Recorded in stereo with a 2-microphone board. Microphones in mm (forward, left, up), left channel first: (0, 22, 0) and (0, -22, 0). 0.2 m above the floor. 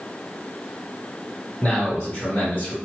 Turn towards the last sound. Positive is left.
turn(degrees=35)  # may be behind; listen again after turning